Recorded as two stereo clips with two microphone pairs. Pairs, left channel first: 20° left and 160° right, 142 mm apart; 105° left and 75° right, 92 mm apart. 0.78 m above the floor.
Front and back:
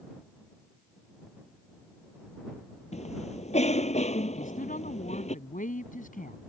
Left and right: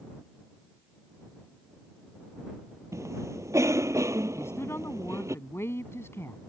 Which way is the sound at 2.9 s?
20° right.